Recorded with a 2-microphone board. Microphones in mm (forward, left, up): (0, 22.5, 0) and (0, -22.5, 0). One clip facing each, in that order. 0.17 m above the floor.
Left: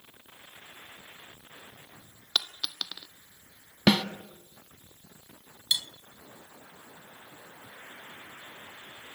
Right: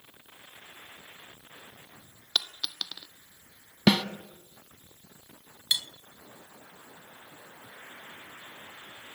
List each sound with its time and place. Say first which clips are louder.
2.4 s a dropped coin: even; 10° left (ahead or behind), 1.0 m
3.9 s a snare drum: even; 10° left (ahead or behind), 1.1 m
5.7 s cutlery clinking: even; 20° right (ahead or behind), 0.8 m